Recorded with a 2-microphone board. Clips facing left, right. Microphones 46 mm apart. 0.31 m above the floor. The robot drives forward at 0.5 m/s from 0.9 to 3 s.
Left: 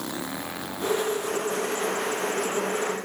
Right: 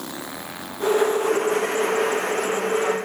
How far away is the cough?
I don't hear a cough.